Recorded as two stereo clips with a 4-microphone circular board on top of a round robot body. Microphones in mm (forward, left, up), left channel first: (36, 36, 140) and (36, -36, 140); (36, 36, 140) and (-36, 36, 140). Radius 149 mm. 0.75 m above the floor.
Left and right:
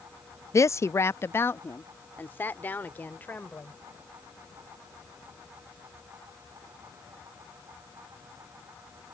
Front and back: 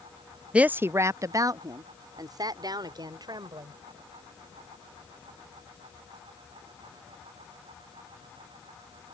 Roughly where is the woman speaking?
Left.